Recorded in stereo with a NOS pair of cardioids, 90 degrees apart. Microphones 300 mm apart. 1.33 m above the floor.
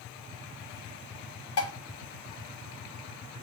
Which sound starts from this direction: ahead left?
Dishes clattering, at 1.6 s.